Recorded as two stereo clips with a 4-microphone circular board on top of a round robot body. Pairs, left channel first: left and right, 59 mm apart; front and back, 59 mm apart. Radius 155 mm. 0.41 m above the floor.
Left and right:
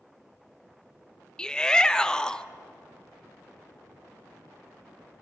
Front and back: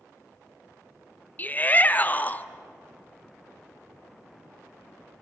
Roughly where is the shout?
Ahead left.